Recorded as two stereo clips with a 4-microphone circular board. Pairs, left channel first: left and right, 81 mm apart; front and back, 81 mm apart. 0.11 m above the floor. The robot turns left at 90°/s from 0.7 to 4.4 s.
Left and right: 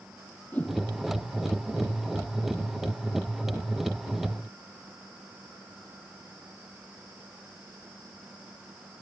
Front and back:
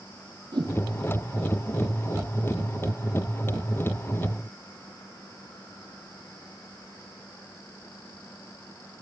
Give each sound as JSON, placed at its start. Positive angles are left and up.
{"t": 0.5, "sound": "a whoosh", "azimuth_deg": 160, "distance_m": 1.6}